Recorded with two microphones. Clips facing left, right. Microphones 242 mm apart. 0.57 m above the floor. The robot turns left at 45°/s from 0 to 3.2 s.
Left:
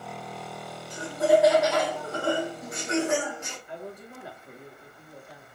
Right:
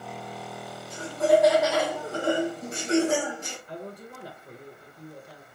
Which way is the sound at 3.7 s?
40° right (ahead or behind).